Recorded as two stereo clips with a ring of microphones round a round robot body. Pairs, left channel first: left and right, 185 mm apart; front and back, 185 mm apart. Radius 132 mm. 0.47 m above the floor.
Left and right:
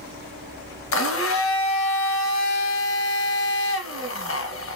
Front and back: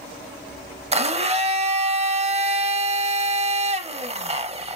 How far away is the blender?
About 0.6 m.